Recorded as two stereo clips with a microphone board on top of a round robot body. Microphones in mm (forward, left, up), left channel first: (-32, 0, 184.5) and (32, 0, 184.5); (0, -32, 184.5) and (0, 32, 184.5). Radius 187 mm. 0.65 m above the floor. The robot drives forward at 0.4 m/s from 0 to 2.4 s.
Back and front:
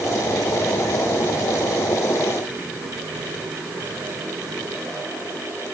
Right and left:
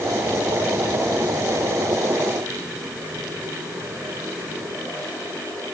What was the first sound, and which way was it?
Only background noise.